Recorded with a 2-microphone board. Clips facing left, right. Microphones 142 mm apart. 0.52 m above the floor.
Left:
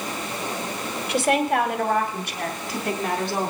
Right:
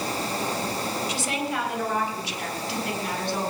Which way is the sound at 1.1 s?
60° left (ahead or behind).